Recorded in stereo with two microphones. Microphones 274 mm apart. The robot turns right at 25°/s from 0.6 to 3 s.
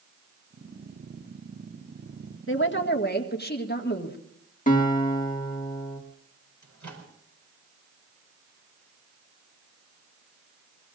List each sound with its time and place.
2.5 s a woman speaking: 50° left (ahead or behind), 1.9 m; by 4.2 s 35° left (ahead or behind), 1.9 m
4.7 s a guitar: 30° left (ahead or behind), 2 m
6.6 s a microwave: 85° right, 4 m